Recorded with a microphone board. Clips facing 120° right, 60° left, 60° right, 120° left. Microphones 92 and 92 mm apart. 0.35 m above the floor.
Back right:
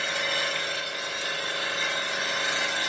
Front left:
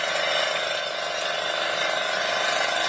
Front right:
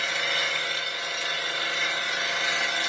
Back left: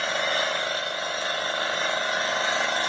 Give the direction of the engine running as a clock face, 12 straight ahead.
10 o'clock.